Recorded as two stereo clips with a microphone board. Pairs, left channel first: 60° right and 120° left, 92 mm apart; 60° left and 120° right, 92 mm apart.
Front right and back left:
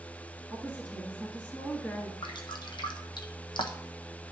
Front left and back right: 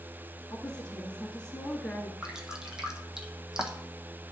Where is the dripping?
40° right, 1.1 m.